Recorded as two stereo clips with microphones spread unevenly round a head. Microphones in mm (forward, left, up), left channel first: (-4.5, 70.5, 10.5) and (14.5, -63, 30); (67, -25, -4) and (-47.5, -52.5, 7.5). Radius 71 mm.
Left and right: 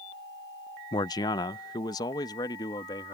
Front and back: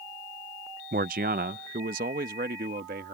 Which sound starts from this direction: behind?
A man speaking, at 0.9 s.